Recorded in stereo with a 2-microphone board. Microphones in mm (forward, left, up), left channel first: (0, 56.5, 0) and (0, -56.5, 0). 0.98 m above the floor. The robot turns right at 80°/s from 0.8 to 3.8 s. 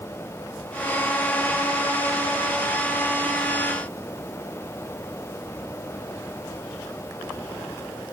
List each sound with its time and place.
Only background noise.